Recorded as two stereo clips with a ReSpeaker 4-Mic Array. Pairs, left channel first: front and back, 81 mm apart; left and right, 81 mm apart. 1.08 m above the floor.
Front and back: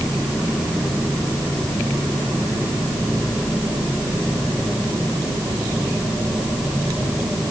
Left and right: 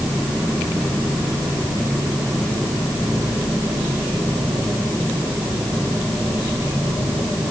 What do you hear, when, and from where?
Only background noise.